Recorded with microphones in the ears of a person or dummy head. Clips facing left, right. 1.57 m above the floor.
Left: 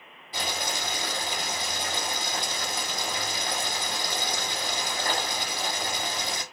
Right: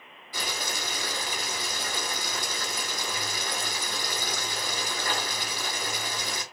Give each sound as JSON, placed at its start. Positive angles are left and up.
{"t": 0.3, "sound": "boiling", "side_deg": 25, "distance_m": 1.7}